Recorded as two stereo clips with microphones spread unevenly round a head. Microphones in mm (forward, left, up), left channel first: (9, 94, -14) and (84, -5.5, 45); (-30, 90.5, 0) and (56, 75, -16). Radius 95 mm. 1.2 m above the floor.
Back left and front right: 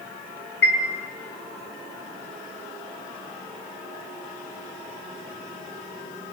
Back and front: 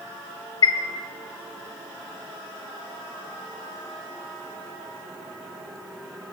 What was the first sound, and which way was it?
A chime, 155° left.